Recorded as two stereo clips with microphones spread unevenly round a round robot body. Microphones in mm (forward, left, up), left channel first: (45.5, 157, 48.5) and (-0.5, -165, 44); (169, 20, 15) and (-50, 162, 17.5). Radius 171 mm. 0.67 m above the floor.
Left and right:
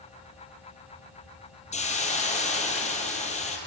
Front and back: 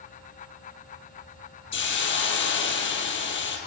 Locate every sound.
1.7 s a hiss: 10° left, 3.5 m